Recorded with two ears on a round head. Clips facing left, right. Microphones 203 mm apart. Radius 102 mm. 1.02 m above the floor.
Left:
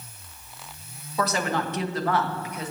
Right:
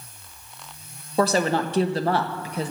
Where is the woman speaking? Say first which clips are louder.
Right 5 dB; 30° right (ahead or behind), 1.3 m.